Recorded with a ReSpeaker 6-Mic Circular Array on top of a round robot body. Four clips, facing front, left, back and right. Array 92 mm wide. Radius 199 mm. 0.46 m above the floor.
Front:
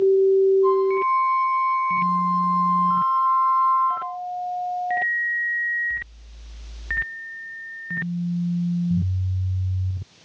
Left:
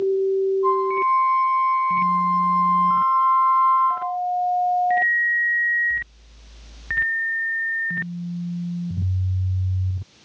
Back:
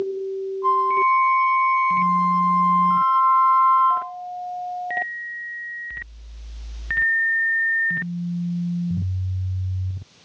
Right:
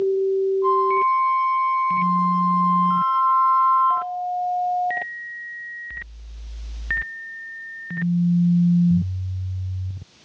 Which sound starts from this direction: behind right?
A flute, at 0.6 s.